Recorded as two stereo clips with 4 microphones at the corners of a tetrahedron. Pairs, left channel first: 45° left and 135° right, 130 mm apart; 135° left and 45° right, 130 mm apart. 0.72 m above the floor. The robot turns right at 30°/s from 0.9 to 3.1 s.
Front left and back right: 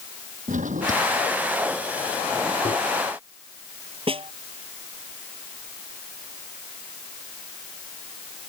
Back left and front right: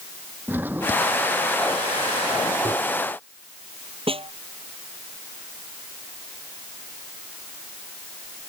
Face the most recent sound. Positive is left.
turn(degrees=-90)